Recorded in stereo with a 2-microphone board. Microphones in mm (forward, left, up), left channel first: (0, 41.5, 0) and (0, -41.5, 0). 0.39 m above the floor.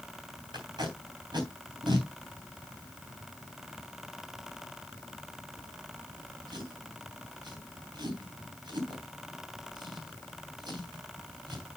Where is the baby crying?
No baby crying in this recording.